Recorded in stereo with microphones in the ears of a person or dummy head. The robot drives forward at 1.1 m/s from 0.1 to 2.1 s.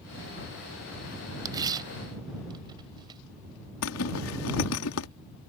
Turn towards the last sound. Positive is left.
turn(degrees=70)  # may be behind; listen again after turning